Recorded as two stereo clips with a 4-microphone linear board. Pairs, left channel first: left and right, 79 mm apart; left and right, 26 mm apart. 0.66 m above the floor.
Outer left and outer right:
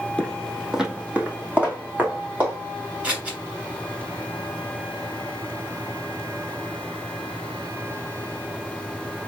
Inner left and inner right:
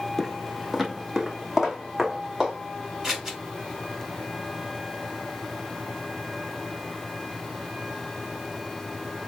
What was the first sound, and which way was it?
Footsteps, 15° left (ahead or behind).